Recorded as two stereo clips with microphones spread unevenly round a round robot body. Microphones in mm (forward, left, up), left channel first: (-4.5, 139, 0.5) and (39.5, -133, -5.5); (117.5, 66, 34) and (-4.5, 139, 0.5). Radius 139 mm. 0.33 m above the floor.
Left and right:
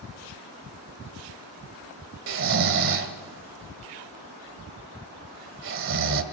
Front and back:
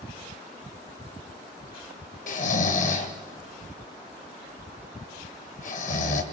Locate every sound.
2.3 s snoring: 60° right, 1.6 m